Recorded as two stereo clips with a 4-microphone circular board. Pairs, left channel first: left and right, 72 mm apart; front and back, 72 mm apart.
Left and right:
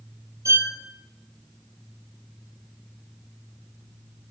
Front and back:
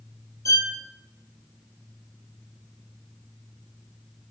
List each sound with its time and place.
0.5 s a violin: 40° right, 1.0 m